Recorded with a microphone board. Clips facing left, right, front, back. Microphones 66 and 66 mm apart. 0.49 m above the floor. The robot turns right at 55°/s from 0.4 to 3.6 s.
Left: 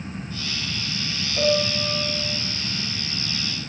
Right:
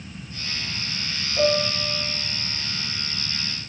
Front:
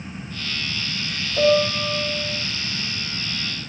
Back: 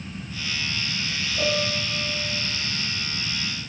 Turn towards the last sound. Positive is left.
turn(degrees=125)